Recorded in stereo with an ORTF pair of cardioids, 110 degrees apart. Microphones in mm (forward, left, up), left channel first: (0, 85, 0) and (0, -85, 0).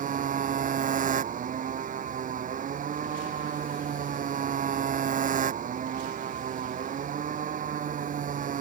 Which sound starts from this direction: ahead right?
A motorcycle, at 0.0 s.